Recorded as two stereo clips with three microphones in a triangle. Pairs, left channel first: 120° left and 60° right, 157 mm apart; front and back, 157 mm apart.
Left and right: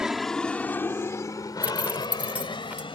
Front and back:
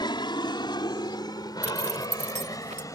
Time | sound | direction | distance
0.0 | an aircraft | 25° left | ?
1.6 | a zipper | 140° right | ?